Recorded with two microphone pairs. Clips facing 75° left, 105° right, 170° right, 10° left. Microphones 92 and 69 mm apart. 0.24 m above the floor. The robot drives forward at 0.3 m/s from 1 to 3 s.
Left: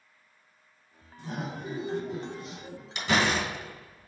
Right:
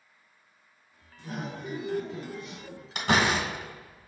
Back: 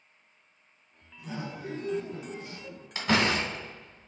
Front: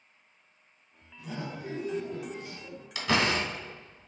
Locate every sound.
1.2 s laughter: 105° left, 2 m; by 2.9 s 120° left, 2 m
3.0 s a door slam: 120° right, 1.4 m; by 4.1 s 125° right, 1.5 m